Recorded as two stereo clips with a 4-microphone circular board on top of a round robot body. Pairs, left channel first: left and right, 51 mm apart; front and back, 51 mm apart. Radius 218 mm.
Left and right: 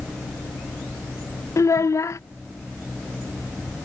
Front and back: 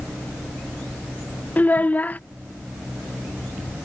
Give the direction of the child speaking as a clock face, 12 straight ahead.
10 o'clock.